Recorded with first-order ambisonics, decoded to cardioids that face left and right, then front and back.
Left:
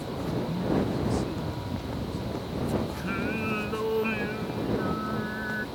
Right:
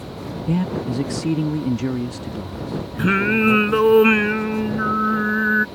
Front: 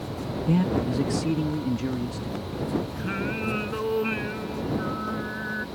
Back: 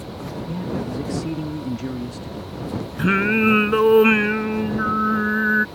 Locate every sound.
0.5 s a man speaking: 55° right; by 4.0 s 105° right
3.0 s singing: 135° right